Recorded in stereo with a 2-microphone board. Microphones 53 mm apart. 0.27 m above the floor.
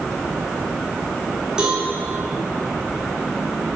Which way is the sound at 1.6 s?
15° right (ahead or behind).